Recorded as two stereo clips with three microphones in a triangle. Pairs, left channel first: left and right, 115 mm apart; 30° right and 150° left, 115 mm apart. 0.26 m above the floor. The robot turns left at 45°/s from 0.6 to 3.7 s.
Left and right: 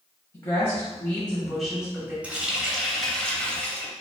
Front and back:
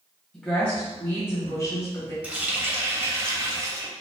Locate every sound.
0.3 s a woman speaking: 45° left, 1.2 m; by 2.1 s 25° right, 1.2 m
2.2 s a running tap: 150° right, 0.6 m; by 3.9 s 145° left, 0.6 m